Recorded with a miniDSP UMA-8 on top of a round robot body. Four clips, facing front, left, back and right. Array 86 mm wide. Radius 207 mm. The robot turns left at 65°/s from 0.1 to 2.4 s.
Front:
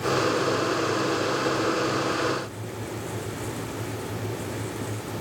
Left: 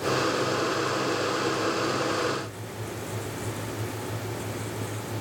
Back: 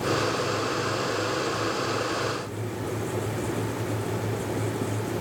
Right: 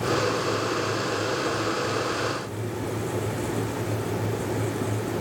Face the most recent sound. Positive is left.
No sound to turn to.